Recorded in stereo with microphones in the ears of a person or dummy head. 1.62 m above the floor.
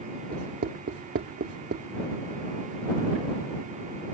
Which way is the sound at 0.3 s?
55° right (ahead or behind).